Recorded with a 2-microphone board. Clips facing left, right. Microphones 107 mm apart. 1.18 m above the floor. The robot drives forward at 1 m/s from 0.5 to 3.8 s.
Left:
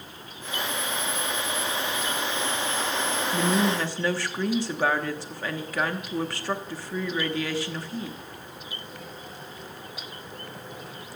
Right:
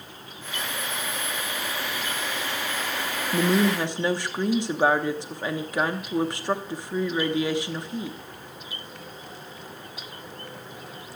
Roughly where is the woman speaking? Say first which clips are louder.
Right 3 dB; right.